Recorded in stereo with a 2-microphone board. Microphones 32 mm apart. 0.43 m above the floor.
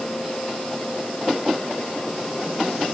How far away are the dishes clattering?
I don't hear dishes clattering.